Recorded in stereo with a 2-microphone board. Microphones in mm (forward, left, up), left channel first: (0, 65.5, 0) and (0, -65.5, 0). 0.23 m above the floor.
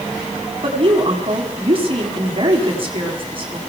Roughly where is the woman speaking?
Right.